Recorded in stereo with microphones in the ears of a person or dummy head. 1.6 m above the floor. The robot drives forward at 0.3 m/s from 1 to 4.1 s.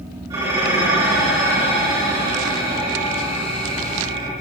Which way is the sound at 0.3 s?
25° right (ahead or behind).